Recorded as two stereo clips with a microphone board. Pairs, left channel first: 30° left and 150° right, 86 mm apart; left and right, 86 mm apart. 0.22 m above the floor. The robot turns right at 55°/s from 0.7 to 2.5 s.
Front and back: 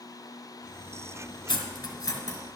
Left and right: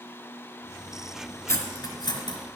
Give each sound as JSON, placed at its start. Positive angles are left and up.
{"t": 1.5, "sound": "cutlery clinking", "azimuth_deg": 40, "distance_m": 1.4}